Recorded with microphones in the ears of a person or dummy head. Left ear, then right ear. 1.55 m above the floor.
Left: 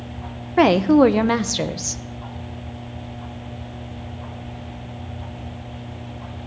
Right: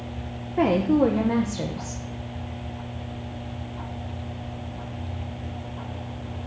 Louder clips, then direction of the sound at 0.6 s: Left 7 dB; 65° left (ahead or behind).